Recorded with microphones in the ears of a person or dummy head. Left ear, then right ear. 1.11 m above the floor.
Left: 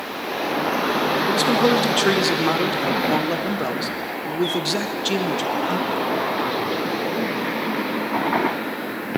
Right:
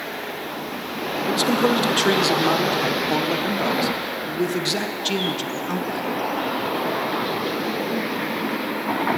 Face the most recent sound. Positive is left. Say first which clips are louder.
# even
turn(degrees=5)  # may be behind; listen again after turning